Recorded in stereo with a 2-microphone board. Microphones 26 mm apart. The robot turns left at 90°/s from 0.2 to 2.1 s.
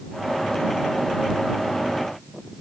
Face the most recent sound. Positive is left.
No sound to turn to.